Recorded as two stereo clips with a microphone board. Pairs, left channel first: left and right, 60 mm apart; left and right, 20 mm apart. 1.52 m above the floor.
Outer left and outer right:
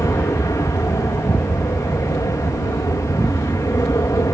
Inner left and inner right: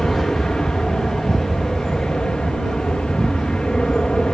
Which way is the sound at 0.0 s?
65° left (ahead or behind).